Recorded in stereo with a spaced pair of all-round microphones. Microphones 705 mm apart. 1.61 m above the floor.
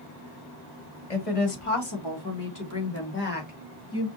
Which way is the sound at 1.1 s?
55° left (ahead or behind).